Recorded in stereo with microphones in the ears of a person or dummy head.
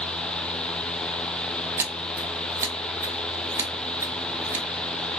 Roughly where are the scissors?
Centre.